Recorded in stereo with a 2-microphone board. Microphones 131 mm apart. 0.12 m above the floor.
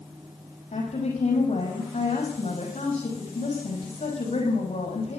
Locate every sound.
0.7 s a woman speaking: 55° left (ahead or behind), 5 m